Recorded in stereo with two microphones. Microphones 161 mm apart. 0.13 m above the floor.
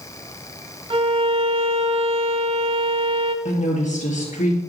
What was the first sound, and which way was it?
A violin, 35° right (ahead or behind).